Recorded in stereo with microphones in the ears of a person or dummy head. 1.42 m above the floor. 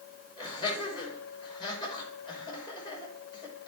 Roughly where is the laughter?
Left.